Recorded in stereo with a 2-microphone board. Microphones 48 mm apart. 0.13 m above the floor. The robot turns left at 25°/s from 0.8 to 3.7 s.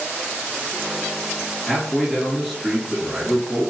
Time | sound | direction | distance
1.7 | a man speaking | 15° left | 1.9 m